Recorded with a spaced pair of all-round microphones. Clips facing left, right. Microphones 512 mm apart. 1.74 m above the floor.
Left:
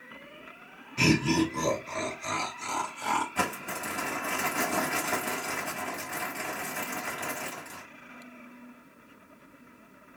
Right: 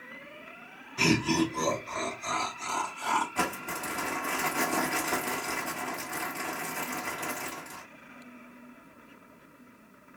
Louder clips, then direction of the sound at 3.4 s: Even; 35° left (ahead or behind).